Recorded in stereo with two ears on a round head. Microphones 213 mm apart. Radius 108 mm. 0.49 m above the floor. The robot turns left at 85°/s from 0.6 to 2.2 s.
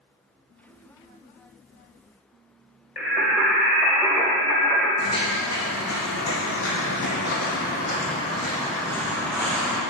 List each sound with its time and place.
3.0 s singing: centre (ahead or behind), 0.9 m
5.0 s footsteps: 65° left (ahead or behind), 1.9 m; by 9.8 s centre (ahead or behind), 2 m